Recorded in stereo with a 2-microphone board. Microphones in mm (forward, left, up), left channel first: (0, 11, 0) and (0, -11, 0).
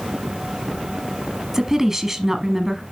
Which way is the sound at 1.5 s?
15° right (ahead or behind).